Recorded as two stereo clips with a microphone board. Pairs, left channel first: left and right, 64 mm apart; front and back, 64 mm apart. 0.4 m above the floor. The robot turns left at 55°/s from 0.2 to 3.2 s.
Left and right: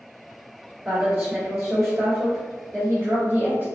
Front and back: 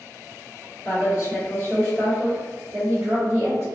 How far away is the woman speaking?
About 1.6 m.